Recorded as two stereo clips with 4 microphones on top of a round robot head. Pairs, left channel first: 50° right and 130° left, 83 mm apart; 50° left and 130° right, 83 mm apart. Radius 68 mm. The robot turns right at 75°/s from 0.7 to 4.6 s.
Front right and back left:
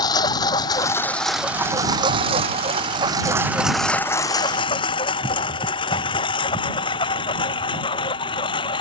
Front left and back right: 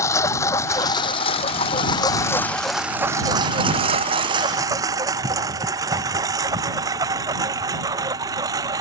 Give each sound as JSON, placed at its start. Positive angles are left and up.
{"t": 0.0, "sound": "a lawn mower", "azimuth_deg": -5}